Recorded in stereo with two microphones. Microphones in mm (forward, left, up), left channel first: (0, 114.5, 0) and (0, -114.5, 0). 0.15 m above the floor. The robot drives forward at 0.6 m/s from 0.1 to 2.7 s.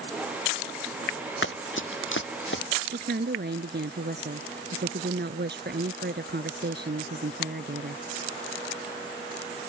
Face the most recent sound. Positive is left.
turn(degrees=-50)  # may be behind; listen again after turning